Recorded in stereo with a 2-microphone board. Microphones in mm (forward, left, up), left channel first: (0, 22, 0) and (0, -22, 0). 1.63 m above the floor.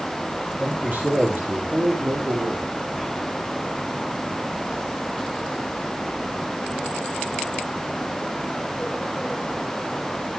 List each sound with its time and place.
0.5 s a man speaking: 35° right (ahead or behind), 3 m; by 2.7 s 40° right (ahead or behind), 4.5 m